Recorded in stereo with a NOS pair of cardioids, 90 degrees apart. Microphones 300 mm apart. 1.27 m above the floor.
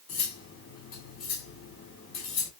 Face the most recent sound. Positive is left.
turn(degrees=60)